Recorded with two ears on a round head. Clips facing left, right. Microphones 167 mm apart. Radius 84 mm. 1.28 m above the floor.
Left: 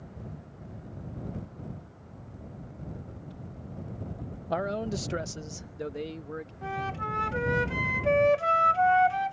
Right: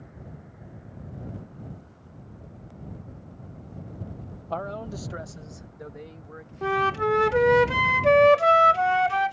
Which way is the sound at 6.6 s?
75° right (ahead or behind).